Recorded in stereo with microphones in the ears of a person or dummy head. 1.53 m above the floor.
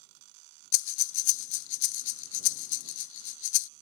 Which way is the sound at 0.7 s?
65° left (ahead or behind).